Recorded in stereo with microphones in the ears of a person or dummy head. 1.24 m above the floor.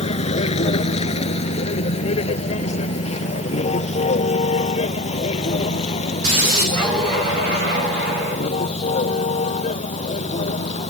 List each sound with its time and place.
0.0 s a vehicle: 35° left (ahead or behind); by 10.9 s 40° left (ahead or behind)